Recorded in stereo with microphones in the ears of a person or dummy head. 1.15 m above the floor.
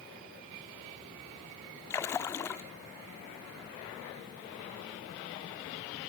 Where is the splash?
10° left (ahead or behind), 0.8 m.